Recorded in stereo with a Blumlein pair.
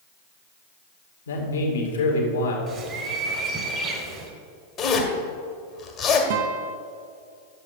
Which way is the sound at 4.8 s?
25° left.